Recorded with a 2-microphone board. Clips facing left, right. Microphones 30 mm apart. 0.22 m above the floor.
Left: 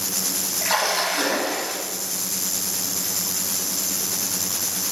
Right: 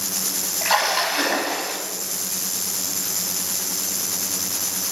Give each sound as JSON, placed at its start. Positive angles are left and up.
{"t": 0.6, "sound": "a splash", "side_deg": -15, "distance_m": 0.9}